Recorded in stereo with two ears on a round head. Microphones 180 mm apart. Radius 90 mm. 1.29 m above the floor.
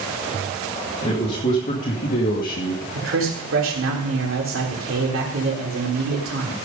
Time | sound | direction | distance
1.0 | a man speaking | 30° left (ahead or behind) | 2.5 m
3.0 | a man speaking | 70° right (ahead or behind) | 3.5 m